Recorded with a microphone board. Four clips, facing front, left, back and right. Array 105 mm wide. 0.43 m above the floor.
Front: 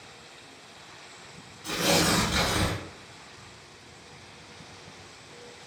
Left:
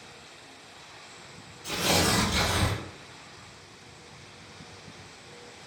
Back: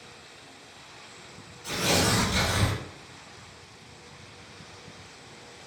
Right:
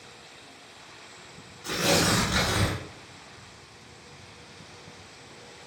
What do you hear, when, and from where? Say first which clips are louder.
1.6 s tearing paper: right 2 dB, front 1 dB; 65° right, 1.4 m